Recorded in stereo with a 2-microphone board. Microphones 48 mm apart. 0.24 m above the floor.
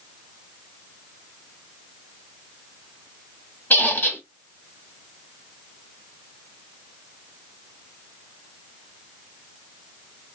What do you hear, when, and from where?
3.7 s a squeak: 40° left (ahead or behind), 1.2 m